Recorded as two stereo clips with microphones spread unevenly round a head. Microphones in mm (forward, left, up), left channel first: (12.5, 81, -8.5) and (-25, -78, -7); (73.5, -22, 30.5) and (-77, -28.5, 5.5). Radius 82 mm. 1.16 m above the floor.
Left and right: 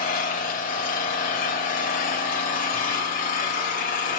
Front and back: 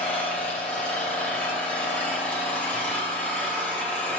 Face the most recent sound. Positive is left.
turn(degrees=75)